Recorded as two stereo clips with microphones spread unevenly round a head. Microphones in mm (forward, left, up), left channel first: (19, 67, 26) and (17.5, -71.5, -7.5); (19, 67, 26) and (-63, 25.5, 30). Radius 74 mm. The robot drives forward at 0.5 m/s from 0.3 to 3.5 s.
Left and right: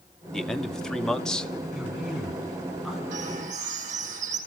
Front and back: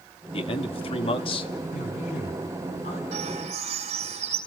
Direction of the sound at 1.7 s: 5° right.